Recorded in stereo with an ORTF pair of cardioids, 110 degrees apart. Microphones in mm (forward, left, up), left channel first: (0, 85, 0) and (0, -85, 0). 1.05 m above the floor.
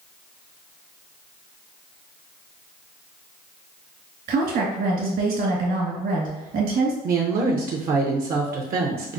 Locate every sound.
4.3 s a woman speaking: 60° right, 1.5 m
7.0 s a woman speaking: 60° right, 0.7 m